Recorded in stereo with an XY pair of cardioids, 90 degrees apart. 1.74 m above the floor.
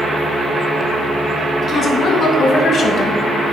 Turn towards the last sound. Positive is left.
turn(degrees=65)